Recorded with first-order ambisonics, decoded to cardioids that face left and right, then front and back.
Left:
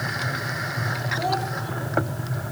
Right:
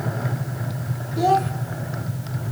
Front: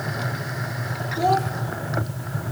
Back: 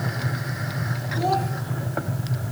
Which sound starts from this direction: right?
A child speaking, at 1.2 s.